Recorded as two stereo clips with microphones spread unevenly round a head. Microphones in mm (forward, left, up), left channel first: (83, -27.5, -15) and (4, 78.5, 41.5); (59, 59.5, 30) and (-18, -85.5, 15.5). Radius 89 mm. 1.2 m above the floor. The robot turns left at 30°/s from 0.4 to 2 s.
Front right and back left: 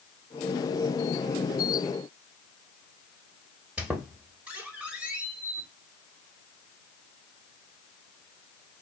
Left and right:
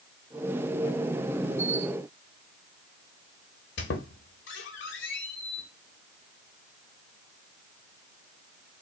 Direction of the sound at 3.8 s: 55° left.